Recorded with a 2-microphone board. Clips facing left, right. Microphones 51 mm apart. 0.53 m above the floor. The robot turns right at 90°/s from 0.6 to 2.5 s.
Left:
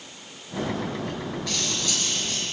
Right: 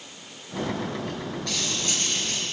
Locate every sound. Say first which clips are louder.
1.5 s cutlery clinking: right 1 dB; 175° left, 5.5 m; by 2.4 s 95° right, 5.5 m